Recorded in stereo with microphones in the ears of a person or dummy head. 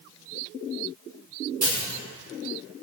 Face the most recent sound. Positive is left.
turn(degrees=-50)  # may be behind; listen again after turning